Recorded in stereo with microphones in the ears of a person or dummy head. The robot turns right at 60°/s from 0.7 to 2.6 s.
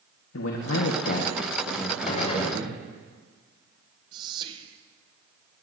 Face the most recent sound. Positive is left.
turn(degrees=-20)  # may be behind; listen again after turning